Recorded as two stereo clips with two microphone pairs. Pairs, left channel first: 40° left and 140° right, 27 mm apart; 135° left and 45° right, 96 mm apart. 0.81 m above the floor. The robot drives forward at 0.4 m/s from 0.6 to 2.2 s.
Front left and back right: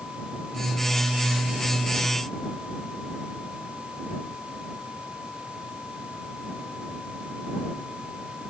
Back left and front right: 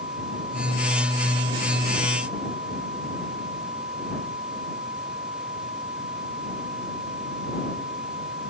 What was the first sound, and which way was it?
Only background noise.